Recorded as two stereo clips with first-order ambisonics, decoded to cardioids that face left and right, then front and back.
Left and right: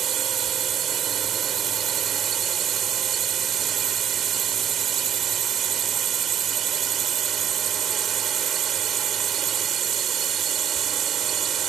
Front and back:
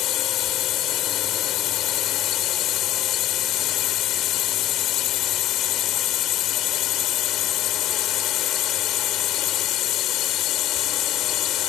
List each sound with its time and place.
0.0 s a drone: 35° right